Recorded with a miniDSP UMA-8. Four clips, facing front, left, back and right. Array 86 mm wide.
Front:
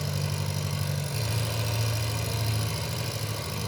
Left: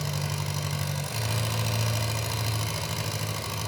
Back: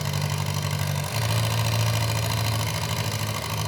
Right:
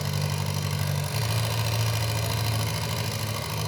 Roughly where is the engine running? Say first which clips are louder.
Right 2 dB, back 3 dB; behind.